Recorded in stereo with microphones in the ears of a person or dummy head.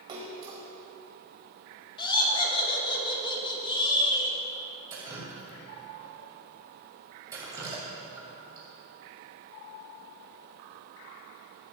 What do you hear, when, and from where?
0.1 s a splash: 30° right (ahead or behind), 1.5 m
2.0 s laughter: 25° left (ahead or behind), 2.5 m
4.9 s dripping: 10° right (ahead or behind), 2.5 m